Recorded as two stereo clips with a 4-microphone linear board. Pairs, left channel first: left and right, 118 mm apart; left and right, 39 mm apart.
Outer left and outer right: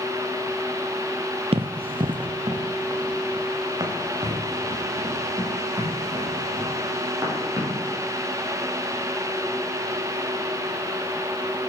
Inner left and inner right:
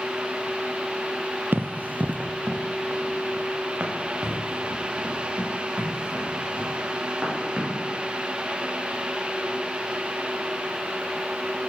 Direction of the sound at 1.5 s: 60° right (ahead or behind).